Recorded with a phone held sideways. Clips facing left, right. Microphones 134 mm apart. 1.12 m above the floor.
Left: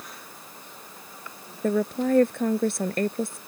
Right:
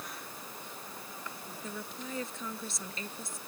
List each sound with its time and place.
1.6 s a woman speaking: 65° left (ahead or behind)